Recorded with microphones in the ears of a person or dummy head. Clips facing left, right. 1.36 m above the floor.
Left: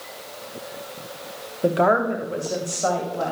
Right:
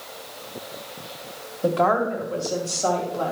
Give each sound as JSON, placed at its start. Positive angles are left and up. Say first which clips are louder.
{"t": 1.6, "sound": "a woman speaking", "louder": "left 2 dB", "side_deg": 20, "distance_m": 1.1}